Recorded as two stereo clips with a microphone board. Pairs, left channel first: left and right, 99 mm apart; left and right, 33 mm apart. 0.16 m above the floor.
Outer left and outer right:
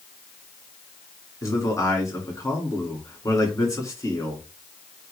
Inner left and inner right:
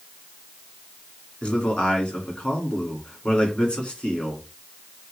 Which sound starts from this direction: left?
A man speaking, at 1.4 s.